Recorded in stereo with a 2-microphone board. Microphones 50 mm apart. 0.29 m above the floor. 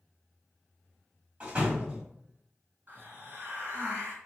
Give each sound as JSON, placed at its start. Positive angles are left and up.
{"t": 1.4, "sound": "a door slam", "side_deg": -20, "distance_m": 1.4}
{"t": 2.9, "sound": "a hiss", "side_deg": -40, "distance_m": 1.6}